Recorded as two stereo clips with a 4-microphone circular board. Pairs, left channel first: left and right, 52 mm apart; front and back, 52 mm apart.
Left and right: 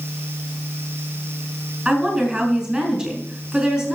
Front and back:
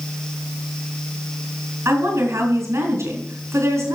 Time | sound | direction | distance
1.9 | a woman speaking | 170° right | 3.5 m